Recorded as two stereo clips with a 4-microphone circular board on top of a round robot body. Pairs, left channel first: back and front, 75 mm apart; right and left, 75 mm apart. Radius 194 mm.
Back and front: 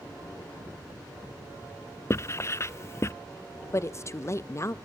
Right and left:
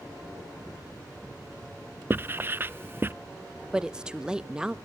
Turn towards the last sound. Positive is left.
turn(degrees=165)